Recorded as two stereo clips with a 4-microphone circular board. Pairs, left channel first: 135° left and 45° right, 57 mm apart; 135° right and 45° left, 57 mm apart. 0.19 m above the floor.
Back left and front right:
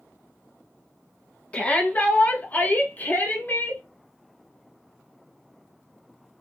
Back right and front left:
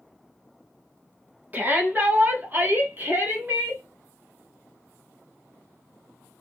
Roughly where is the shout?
Left.